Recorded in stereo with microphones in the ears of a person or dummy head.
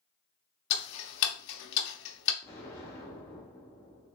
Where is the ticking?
65° left (ahead or behind), 0.8 m.